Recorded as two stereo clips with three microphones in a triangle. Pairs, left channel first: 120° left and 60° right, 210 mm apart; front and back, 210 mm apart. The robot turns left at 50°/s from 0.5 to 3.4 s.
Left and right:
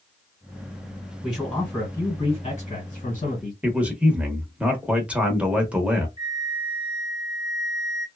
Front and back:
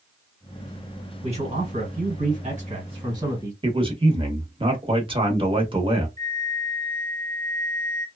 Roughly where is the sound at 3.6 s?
Behind right.